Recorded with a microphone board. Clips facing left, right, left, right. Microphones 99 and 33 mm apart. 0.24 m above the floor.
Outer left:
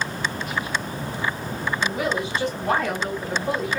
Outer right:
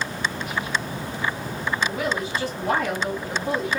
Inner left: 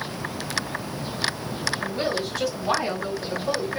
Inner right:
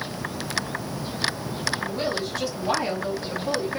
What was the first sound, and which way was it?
A woman speaking, 5° left (ahead or behind).